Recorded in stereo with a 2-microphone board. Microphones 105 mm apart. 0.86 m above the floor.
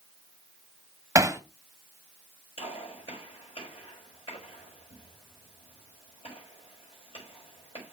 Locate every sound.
1.1 s hammering: 30° right (ahead or behind), 0.8 m
2.6 s a gunshot: 65° left (ahead or behind), 5.5 m